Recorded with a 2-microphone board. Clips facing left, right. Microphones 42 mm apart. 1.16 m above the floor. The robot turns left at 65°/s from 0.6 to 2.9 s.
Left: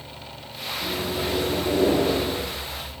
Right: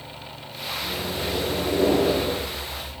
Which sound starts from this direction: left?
A microwave, at 0.8 s.